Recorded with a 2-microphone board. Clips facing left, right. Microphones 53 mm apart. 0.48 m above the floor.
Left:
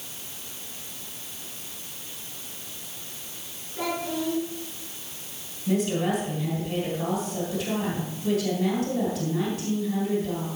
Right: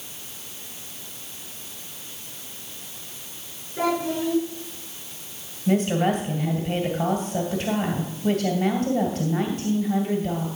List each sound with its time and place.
3.8 s a child speaking: 25° right (ahead or behind), 5 m
5.7 s a woman speaking: 35° right (ahead or behind), 2 m